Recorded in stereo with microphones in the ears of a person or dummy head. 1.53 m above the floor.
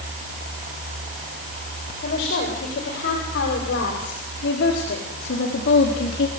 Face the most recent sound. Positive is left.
turn(degrees=75)  # may be behind; listen again after turning